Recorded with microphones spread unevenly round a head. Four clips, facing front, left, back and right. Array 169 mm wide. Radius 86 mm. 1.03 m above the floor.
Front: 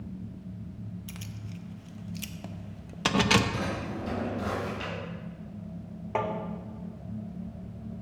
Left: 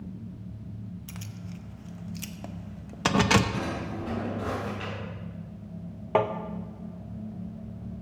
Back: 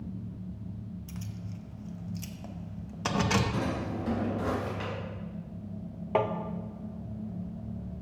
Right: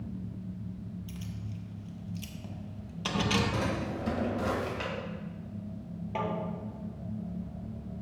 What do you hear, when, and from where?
1.1 s keys jangling: 55° left, 0.6 m
3.5 s a drawer: 95° right, 3 m
6.2 s tapping: 90° left, 0.6 m